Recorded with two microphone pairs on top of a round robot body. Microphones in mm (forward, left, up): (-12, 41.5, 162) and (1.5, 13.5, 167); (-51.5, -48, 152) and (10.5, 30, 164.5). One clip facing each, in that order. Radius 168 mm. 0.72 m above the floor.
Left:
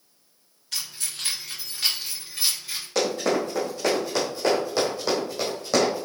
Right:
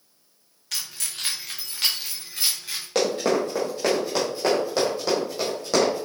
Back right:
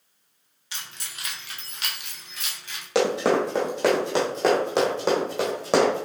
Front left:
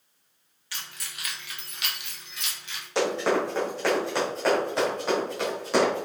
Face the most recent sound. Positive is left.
turn(degrees=-150)